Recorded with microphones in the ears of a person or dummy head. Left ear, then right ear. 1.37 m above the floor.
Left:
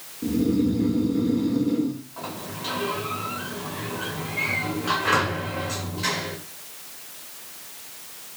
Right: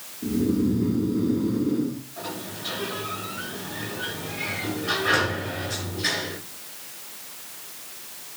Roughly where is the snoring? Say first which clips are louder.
Left 1 dB; left.